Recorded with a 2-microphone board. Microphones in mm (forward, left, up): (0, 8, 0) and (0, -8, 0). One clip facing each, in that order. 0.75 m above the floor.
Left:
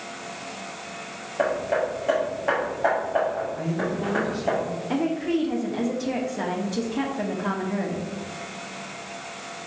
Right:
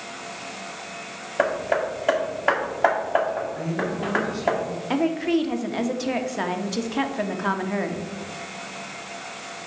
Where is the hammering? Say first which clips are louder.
Right 1 dB; 30° right (ahead or behind), 1.3 m.